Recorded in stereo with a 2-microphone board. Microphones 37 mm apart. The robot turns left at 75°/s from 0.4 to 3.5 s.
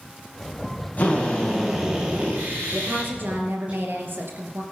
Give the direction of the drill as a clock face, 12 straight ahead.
10 o'clock.